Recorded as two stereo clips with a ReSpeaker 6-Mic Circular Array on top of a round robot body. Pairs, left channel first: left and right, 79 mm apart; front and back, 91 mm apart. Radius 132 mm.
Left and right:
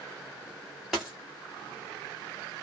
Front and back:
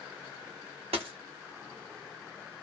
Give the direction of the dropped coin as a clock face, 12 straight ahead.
6 o'clock.